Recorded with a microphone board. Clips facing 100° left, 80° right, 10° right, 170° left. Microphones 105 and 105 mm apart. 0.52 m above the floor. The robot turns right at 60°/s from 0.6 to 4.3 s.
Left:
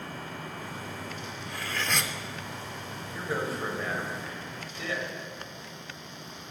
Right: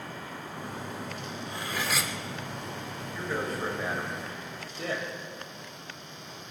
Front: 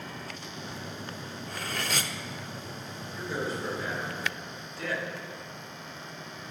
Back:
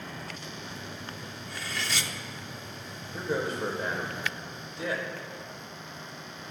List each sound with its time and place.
1.5 s cutlery clinking: 25° right, 0.7 m; by 2.1 s 15° left, 0.7 m
3.1 s a man speaking: 165° left, 2.5 m; by 5.0 s 125° right, 2.5 m